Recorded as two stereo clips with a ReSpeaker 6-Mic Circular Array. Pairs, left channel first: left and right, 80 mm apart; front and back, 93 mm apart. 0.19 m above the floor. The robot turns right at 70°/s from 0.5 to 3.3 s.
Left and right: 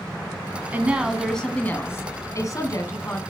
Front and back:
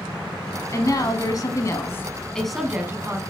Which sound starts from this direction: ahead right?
A woman speaking, at 0.7 s.